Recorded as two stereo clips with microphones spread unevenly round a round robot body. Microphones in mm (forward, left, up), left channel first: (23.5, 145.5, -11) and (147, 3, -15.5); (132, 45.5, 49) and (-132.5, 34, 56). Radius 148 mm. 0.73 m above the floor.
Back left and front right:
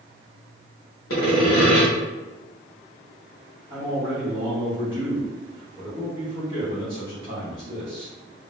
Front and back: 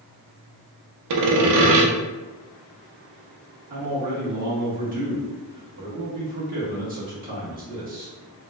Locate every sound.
1.1 s sawing: straight behind, 0.6 m
3.7 s a man speaking: 120° right, 1.3 m